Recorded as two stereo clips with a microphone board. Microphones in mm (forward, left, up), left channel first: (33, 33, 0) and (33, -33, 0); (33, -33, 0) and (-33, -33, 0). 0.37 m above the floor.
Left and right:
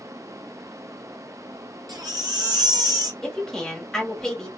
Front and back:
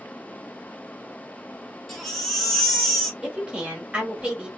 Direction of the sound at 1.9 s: 85° right.